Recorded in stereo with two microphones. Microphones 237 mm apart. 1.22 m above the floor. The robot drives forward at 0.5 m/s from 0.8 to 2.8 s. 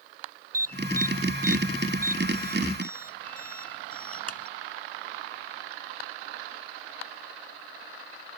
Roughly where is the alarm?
Right.